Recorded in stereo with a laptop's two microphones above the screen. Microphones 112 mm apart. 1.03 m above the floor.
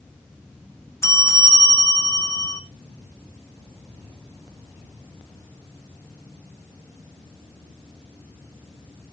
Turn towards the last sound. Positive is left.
turn(degrees=25)  # may be behind; listen again after turning